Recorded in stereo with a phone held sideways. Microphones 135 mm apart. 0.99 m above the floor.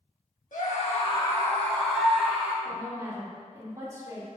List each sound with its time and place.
0.5 s a scream: 70° left (ahead or behind), 1.6 m; by 2.5 s 10° right (ahead or behind), 3 m
2.6 s a woman speaking: 25° right (ahead or behind), 2 m